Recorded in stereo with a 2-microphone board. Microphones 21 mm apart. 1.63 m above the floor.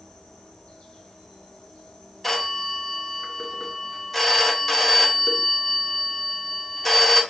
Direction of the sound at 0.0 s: 50° left (ahead or behind).